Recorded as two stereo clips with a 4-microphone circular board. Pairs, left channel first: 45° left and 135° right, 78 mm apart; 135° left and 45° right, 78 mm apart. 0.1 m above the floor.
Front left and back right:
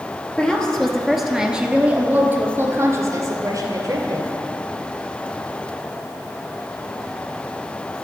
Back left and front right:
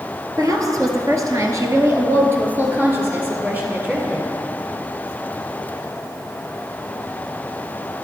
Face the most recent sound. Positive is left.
turn(degrees=-120)